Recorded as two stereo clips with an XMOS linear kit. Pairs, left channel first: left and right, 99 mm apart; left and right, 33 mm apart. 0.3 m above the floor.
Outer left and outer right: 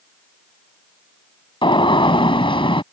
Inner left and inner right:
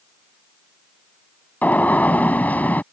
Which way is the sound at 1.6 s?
60° left (ahead or behind).